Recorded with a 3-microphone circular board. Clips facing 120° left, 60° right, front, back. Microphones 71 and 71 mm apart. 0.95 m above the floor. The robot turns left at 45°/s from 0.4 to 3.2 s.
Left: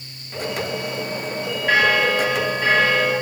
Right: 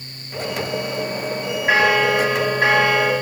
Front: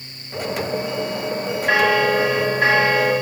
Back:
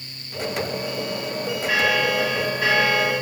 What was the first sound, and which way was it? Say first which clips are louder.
A bell: right 1 dB, front 5 dB; 5° left.